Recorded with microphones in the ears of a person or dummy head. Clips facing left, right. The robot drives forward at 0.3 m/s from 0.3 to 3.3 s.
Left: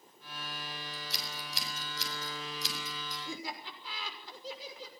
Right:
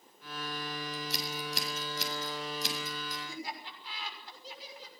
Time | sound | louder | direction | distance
0.9 | scissors | right 6 dB | 45° right (ahead or behind) | 7 m
3.2 | laughter | even | 75° left (ahead or behind) | 6 m